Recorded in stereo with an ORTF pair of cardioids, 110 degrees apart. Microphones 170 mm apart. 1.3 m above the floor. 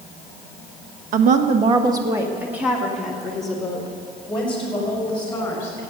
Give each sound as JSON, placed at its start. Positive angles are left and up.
{"t": 1.1, "sound": "a woman speaking", "azimuth_deg": -60, "distance_m": 1.1}